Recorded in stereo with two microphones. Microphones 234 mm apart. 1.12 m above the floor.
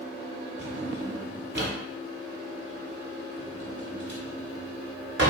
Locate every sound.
0.6 s a drawer: 45° right (ahead or behind), 1.0 m